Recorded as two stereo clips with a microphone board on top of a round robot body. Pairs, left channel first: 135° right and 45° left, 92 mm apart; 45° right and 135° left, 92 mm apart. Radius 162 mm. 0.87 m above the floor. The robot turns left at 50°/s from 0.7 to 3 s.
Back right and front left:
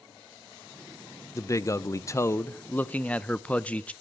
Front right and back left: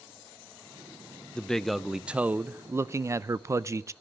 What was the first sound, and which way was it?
A man speaking, 120° right.